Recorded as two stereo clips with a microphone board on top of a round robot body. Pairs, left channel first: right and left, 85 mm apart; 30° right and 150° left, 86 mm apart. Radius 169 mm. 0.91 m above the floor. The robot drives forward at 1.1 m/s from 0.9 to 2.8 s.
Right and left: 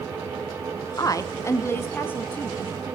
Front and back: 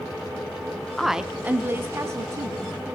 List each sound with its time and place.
1.0 s a woman speaking: 115° right, 1.1 m; by 2.6 s 160° right, 2.5 m